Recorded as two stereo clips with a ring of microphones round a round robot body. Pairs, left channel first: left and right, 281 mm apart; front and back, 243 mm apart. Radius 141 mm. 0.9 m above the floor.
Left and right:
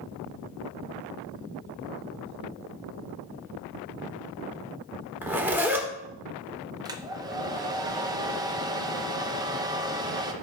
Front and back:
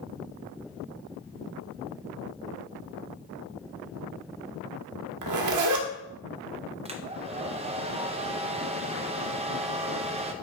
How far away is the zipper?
About 1.4 m.